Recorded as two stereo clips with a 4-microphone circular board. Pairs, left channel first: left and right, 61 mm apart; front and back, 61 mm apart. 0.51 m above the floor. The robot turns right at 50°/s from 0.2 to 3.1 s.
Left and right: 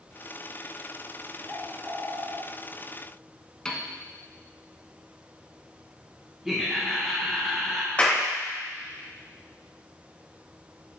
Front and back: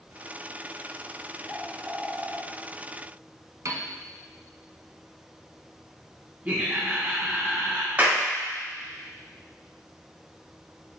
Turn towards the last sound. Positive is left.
turn(degrees=140)